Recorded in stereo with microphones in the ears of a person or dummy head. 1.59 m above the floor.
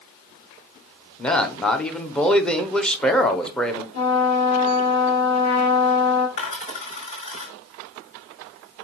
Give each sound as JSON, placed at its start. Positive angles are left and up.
{"t": 1.2, "sound": "a man speaking", "side_deg": 5, "distance_m": 0.7}
{"t": 3.9, "sound": "a trumpet", "side_deg": 25, "distance_m": 1.9}
{"t": 6.4, "sound": "a dropped coin", "side_deg": 40, "distance_m": 5.0}